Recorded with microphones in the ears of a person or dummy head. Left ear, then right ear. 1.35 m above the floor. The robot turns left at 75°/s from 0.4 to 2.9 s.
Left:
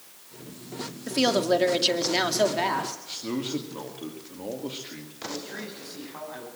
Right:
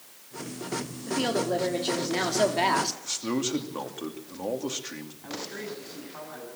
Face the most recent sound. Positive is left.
turn(degrees=10)  # may be behind; listen again after turning